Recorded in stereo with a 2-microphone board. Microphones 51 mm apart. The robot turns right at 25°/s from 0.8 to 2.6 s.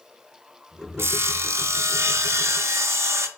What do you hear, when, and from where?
1.0 s sawing: 115° right, 0.6 m; by 3.3 s 75° right, 0.6 m